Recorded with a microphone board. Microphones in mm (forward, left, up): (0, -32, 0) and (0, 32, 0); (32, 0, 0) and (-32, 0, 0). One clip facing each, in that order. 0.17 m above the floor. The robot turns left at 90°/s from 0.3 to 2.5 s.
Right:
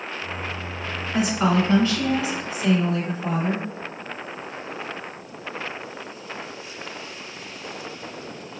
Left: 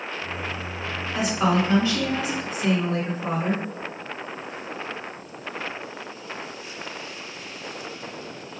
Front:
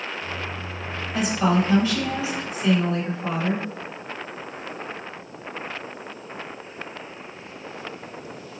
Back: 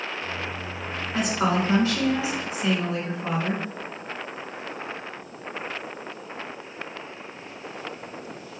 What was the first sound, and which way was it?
A woman speaking, 145° right.